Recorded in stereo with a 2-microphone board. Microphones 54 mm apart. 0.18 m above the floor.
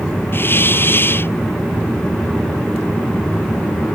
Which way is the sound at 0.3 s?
40° left (ahead or behind).